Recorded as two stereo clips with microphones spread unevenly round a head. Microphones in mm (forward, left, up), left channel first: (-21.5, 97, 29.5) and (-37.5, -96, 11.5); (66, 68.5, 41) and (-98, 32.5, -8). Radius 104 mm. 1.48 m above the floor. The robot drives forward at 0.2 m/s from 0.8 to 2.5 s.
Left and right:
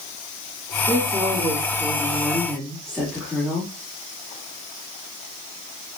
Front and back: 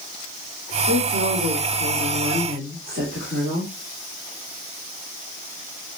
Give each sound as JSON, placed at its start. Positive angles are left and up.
{"t": 0.9, "sound": "a woman speaking", "azimuth_deg": 170, "distance_m": 4.0}